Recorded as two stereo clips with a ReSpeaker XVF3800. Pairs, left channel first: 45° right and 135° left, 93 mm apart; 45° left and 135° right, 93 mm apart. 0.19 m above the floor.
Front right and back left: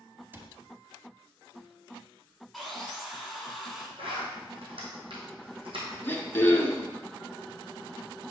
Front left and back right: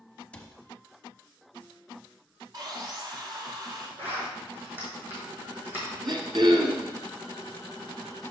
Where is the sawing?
135° right, 1.3 m.